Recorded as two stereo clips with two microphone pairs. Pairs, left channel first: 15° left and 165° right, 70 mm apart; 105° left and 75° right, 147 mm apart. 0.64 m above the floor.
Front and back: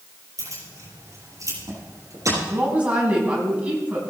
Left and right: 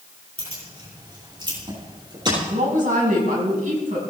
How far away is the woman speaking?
About 5 m.